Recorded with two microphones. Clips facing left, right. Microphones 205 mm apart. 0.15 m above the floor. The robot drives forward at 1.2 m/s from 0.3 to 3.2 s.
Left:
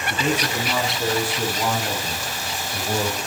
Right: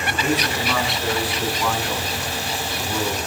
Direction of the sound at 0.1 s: 20° left (ahead or behind).